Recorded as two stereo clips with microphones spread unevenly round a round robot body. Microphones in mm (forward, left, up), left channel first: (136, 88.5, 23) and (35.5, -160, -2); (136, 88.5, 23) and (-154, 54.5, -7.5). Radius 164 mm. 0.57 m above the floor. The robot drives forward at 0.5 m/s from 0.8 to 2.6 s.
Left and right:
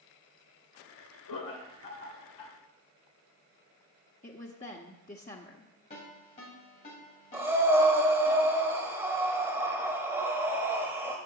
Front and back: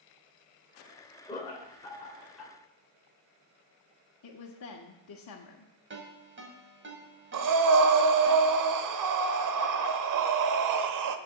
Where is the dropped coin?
I don't hear a dropped coin.